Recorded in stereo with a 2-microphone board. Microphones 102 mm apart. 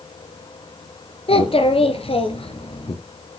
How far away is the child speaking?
About 1.6 m.